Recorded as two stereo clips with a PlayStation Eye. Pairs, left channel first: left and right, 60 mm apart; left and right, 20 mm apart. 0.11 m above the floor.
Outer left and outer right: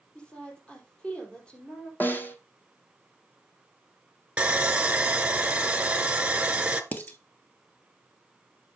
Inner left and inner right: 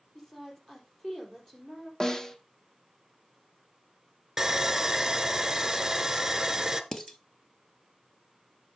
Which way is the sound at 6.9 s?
30° left (ahead or behind).